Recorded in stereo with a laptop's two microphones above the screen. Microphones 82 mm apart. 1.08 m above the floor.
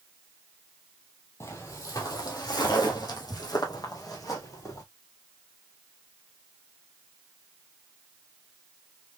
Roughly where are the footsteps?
Left.